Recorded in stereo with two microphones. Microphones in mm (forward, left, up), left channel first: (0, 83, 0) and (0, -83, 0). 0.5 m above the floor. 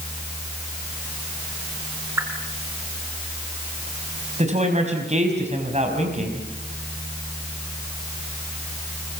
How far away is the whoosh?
About 5 m.